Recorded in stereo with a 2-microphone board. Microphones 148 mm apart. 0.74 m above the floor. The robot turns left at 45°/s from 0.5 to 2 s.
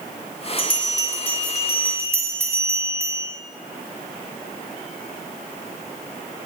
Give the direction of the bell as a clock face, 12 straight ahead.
11 o'clock.